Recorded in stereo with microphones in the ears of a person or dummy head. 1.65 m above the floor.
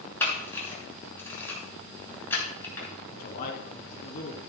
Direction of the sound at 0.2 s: 20° left (ahead or behind).